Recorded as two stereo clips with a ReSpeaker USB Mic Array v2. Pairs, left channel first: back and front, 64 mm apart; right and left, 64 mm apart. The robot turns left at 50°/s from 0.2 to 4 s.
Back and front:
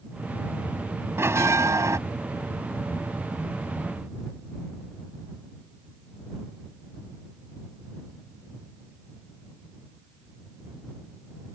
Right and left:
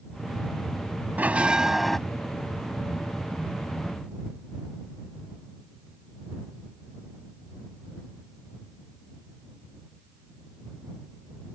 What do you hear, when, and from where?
1.2 s a bell: 35° left; by 2.0 s 5° right